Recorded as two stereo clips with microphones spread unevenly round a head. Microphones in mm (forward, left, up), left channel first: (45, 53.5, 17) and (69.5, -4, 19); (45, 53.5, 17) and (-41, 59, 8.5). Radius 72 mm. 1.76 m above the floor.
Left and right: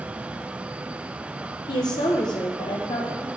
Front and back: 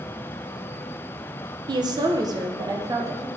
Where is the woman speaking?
140° left, 1.3 m; by 3.3 s 125° left, 2.5 m.